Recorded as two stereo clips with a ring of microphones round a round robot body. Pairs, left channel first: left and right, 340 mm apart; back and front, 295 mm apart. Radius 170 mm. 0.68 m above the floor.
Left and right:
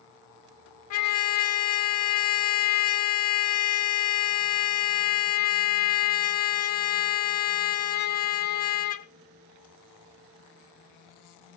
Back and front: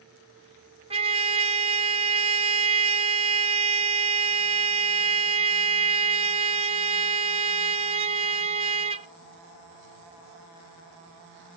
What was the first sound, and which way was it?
A trumpet, 65° left.